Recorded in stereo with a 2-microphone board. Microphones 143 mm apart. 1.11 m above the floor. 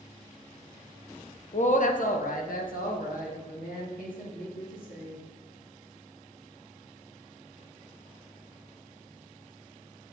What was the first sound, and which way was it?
A woman speaking, 55° left (ahead or behind).